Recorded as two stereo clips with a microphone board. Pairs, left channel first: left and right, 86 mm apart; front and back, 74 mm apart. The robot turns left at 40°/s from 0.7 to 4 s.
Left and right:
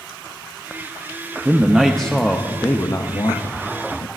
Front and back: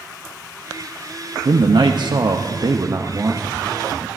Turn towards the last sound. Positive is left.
turn(degrees=95)